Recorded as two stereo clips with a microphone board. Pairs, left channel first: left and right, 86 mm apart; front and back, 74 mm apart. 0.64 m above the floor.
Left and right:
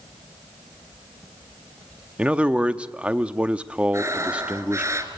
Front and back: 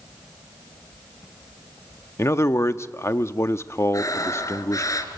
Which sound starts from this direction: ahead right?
Breathing, at 3.9 s.